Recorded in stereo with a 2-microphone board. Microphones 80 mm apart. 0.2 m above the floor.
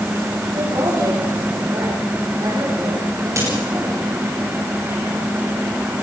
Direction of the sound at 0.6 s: 55° right (ahead or behind).